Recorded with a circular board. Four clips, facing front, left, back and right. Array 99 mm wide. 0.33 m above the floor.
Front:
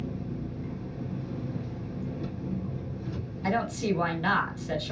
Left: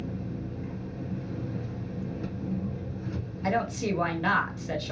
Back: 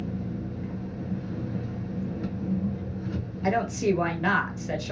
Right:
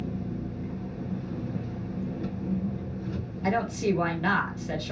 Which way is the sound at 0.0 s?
160° left.